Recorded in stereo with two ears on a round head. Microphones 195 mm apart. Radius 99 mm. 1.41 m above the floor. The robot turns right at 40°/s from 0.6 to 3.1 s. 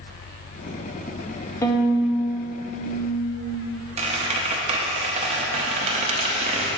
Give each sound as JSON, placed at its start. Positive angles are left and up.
{"t": 1.6, "sound": "a violin", "azimuth_deg": 15, "distance_m": 0.6}
{"t": 4.0, "sound": "a squeak", "side_deg": -30, "distance_m": 0.8}